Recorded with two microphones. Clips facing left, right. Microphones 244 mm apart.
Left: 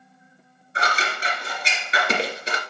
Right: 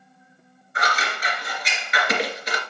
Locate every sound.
0.8 s scissors: 30° left (ahead or behind), 2 m